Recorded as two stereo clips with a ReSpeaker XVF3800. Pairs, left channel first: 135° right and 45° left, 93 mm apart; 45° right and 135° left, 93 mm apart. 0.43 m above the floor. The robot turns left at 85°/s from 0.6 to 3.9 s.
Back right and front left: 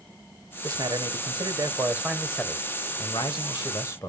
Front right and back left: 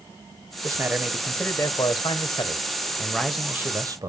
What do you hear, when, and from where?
0.6 s a man speaking: 90° left, 1.6 m; by 4.1 s 175° left, 1.6 m